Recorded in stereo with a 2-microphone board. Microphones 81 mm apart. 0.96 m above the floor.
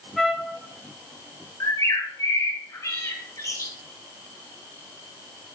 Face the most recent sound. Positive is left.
turn(degrees=40)  # may be behind; listen again after turning